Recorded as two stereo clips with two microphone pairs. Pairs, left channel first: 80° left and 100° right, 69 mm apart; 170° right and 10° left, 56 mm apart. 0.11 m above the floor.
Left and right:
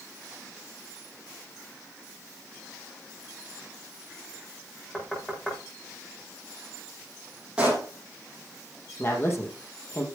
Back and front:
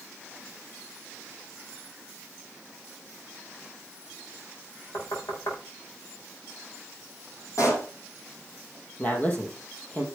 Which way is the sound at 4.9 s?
160° left.